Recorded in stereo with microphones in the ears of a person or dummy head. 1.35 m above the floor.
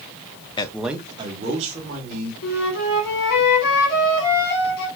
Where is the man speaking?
25° left (ahead or behind), 0.5 m; by 2.3 s 45° right (ahead or behind), 2 m.